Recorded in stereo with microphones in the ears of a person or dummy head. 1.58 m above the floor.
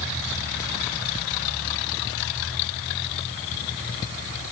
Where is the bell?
No bell in this recording.